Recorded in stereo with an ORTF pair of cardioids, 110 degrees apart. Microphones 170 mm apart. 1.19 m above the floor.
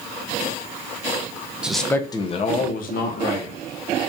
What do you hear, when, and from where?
1.6 s a man speaking: 5° right, 0.6 m; by 3.6 s 70° left, 1.1 m